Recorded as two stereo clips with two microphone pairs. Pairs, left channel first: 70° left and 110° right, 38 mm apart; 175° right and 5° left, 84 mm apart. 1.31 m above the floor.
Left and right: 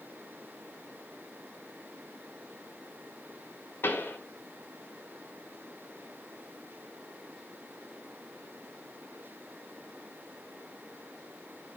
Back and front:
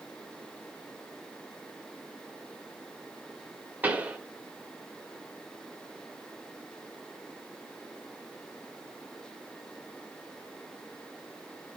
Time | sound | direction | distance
3.8 | a pop | 70° left | 1.9 m